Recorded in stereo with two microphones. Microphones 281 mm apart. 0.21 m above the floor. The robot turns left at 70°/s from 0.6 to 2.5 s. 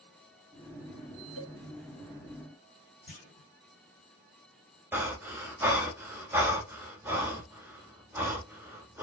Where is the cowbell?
45° left (ahead or behind), 1.4 m; by 1.6 s 35° left (ahead or behind), 1.4 m.